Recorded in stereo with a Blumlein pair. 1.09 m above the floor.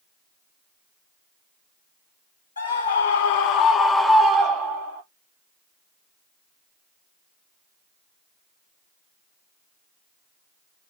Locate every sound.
2.6 s a scream: 70° left, 1.0 m; by 5.0 s 45° right, 0.8 m